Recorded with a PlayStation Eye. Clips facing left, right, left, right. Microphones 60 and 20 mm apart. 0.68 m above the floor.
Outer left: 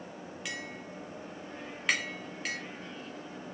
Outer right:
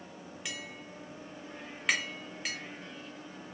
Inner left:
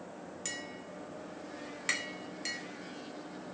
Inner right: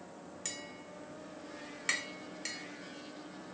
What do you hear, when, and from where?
0.5 s tapping: centre (ahead or behind), 0.6 m